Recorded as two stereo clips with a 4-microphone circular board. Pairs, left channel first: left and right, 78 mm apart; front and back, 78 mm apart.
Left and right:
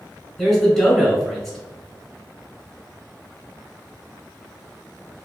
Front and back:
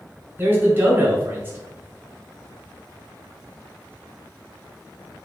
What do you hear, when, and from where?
0.4 s a man speaking: 175° left, 1.2 m